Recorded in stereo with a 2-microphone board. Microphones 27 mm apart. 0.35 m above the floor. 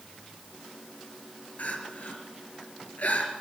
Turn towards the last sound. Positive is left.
turn(degrees=80)